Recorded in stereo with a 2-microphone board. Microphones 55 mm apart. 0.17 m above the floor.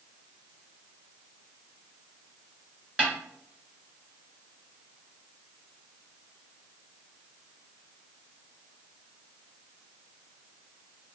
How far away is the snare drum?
About 1.6 m.